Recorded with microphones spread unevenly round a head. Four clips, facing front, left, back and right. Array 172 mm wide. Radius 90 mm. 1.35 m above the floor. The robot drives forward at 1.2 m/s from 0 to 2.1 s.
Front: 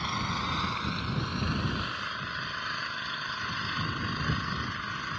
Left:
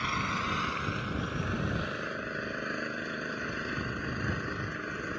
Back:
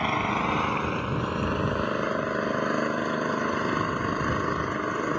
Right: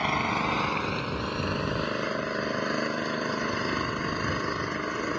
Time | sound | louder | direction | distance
0.0 | an engine running | right 5 dB, back 7 dB | 145° right | ?